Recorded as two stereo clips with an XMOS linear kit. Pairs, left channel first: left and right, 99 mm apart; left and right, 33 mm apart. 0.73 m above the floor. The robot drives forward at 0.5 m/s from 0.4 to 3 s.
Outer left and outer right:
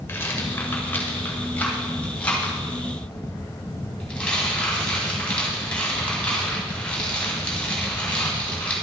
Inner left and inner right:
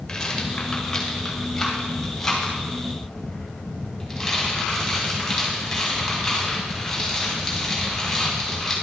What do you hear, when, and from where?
0.1 s a rattle: 25° left (ahead or behind), 1.4 m; by 8.7 s 15° left (ahead or behind), 2.5 m